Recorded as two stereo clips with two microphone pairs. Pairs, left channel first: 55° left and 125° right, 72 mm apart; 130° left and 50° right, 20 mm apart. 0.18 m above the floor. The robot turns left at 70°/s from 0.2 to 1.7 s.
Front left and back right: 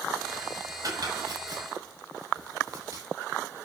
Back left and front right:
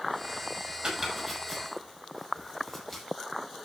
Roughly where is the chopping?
Right.